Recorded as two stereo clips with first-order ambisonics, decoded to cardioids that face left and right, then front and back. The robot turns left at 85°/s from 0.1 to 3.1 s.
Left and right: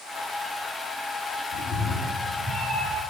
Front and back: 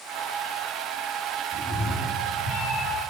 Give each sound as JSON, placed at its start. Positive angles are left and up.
{"t": 1.5, "sound": "a cat meowing", "azimuth_deg": 85, "distance_m": 5.5}